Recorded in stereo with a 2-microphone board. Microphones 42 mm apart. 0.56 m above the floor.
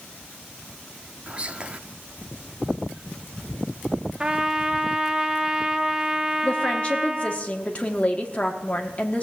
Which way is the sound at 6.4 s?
30° left (ahead or behind).